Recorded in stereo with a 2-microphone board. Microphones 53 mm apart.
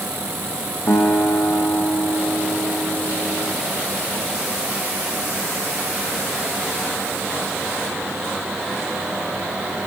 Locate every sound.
0.9 s a guitar: 65° left (ahead or behind), 5 m